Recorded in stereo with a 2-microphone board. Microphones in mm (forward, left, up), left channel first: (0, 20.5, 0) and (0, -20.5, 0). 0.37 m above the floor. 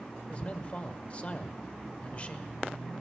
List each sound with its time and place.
0.3 s a man speaking: 30° left (ahead or behind), 1.0 m